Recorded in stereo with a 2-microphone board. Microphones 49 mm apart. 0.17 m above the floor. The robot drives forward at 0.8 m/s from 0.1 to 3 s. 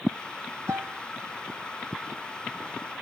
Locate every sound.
0.7 s a piano: 70° right (ahead or behind), 2.5 m; by 1.0 s 75° right (ahead or behind), 2 m